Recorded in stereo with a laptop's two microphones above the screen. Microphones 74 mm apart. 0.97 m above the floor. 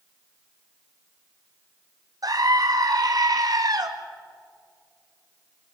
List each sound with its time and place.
2.2 s a scream: 55° right (ahead or behind), 1.8 m